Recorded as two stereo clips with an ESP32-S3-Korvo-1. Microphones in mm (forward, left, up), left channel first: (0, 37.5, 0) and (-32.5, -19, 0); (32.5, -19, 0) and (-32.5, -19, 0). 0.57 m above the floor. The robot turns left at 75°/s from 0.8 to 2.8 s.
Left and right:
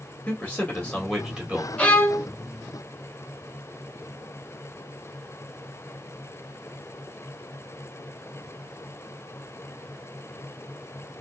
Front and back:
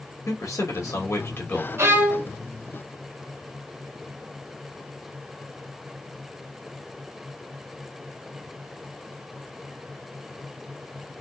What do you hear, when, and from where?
0.3 s a man speaking: straight ahead, 1.9 m; by 1.7 s 65° right, 1.9 m
1.8 s a violin: 135° left, 1.3 m; by 2.3 s 95° left, 1.3 m